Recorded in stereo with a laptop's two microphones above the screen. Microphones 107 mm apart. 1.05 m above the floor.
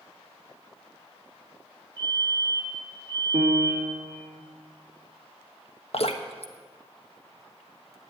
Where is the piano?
70° right (ahead or behind), 2.5 m.